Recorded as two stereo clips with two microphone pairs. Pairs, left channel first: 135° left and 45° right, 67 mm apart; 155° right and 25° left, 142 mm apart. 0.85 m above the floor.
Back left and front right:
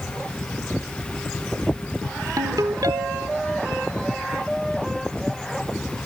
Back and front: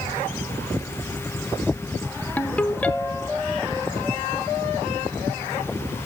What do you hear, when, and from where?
2.4 s a ringtone: 75° right, 1.0 m